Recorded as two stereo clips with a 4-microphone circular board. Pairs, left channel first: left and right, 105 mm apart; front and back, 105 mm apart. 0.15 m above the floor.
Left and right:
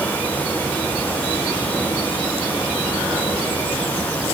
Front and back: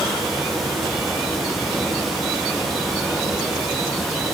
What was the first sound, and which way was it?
Only background noise.